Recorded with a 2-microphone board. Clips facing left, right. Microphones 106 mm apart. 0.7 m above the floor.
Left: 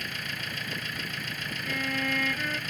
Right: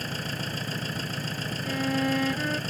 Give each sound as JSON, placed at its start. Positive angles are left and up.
{"t": 0.0, "sound": "an engine running", "side_deg": -35}
{"t": 1.6, "sound": "a violin", "side_deg": -25}